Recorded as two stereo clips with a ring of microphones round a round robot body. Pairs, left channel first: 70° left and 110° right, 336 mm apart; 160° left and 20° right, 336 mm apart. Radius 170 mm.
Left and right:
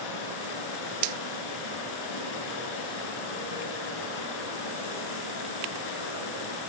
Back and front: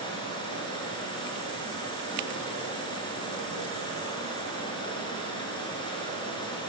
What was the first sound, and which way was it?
Running water, 80° left.